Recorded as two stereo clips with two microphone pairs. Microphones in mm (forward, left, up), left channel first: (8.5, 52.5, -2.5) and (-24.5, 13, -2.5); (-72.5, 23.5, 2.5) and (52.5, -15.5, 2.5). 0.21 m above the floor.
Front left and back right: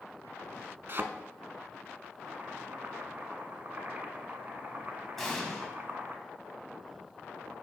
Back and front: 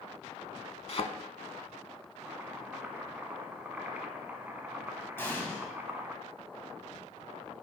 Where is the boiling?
90° right, 1.1 m.